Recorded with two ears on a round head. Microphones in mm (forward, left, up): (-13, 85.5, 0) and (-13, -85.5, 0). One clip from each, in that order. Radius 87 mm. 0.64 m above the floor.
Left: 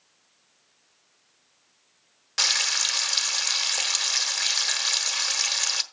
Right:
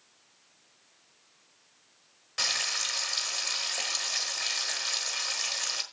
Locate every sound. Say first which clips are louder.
2.4 s frying: left 6 dB; 45° left (ahead or behind), 1.2 m